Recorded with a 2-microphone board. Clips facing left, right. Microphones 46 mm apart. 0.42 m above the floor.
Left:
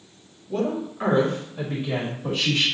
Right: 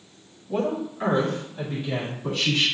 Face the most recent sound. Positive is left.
turn(degrees=60)  # may be behind; listen again after turning